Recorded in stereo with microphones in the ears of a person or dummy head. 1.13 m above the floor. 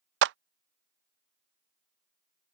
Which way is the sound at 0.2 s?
70° right (ahead or behind).